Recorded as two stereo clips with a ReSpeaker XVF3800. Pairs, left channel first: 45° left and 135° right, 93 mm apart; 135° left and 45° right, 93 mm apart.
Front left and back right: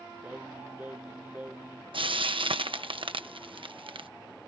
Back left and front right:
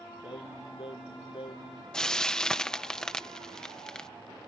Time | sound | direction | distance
0.2 | singing | 150° left | ?
1.9 | frying | 145° right | ?